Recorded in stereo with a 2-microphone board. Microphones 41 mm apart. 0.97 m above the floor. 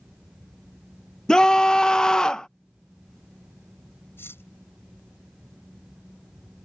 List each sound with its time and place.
1.3 s a scream: 15° left (ahead or behind)
4.2 s cutlery clinking: 85° left